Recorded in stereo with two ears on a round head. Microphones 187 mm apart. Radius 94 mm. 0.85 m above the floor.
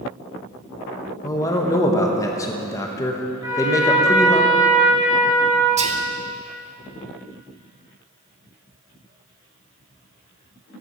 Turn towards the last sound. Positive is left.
turn(degrees=-35)  # may be behind; listen again after turning